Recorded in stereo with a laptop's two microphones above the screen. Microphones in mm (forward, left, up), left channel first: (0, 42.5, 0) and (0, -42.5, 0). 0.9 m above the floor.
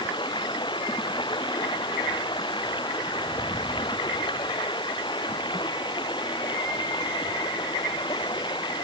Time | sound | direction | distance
0.0 | running water | 70° left (ahead or behind) | ?